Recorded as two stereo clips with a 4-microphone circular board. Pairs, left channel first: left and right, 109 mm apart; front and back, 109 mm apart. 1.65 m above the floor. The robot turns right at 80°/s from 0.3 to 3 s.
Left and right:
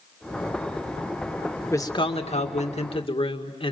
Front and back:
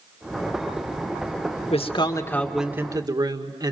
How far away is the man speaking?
About 2.0 m.